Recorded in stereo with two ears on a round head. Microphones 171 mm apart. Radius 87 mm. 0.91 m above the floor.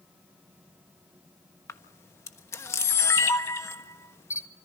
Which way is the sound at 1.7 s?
15° left (ahead or behind).